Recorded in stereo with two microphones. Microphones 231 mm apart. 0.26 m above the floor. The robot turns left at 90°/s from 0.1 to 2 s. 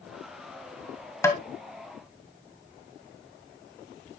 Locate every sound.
1.2 s tapping: 15° left (ahead or behind), 1.4 m; by 1.4 s centre (ahead or behind), 1.4 m